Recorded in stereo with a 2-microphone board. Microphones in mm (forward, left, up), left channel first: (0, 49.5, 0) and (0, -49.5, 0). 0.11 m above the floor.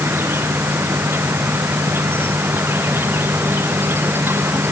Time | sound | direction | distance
0.0 | an insect | 20° right (ahead or behind) | ?